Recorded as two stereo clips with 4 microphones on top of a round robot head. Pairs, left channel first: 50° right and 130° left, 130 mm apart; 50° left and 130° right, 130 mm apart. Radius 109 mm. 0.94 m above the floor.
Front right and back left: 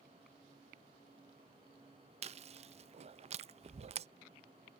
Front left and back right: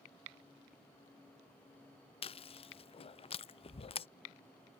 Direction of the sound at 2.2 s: 95° left.